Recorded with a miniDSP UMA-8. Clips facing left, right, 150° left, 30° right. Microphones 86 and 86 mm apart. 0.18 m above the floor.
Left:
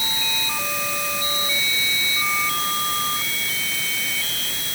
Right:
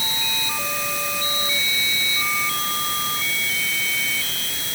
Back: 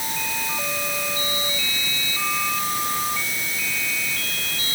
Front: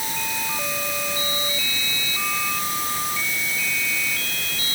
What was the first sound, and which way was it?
Only background noise.